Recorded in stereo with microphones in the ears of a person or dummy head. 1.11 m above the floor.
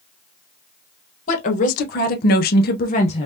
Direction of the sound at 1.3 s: 35° left (ahead or behind).